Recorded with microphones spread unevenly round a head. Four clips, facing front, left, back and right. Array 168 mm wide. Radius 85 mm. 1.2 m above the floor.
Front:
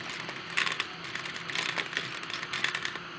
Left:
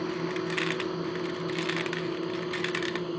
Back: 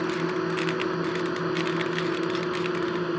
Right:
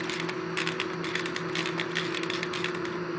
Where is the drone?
170° left; by 3.2 s straight behind.